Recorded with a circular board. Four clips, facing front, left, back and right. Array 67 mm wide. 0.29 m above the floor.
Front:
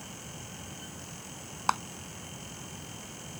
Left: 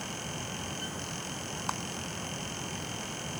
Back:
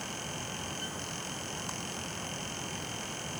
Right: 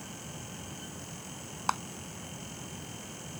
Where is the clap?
25° right.